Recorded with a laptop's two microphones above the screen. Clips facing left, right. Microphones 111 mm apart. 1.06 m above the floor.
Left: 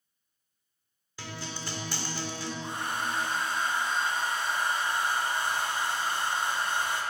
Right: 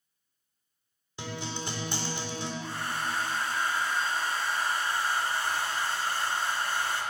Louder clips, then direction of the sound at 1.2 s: Right 3 dB; 20° right (ahead or behind).